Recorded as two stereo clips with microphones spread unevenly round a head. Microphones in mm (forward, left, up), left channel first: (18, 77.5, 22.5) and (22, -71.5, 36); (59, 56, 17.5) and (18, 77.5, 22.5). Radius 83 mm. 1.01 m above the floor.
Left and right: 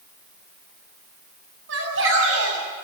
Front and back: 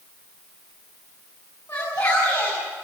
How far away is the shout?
About 8 m.